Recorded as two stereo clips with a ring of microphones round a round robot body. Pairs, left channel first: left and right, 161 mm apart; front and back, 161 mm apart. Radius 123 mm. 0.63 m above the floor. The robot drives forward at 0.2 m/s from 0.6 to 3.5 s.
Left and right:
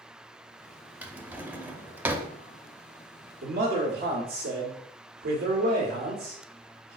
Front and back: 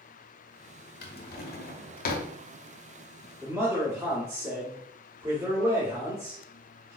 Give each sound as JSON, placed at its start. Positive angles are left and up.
{"t": 1.0, "sound": "a drawer", "azimuth_deg": -10, "distance_m": 0.9}
{"t": 3.4, "sound": "a man speaking", "azimuth_deg": -110, "distance_m": 1.6}